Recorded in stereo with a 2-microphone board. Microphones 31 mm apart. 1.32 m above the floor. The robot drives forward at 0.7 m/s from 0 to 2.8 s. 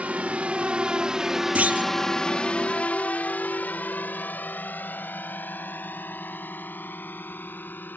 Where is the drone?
50° right (ahead or behind); by 8.0 s 80° left.